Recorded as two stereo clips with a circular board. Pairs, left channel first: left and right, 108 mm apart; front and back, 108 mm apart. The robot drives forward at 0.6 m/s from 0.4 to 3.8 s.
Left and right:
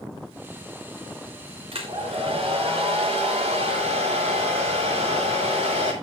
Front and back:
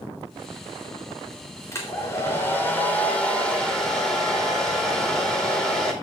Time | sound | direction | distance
1.7 | a hair dryer | 60° right | 3.5 m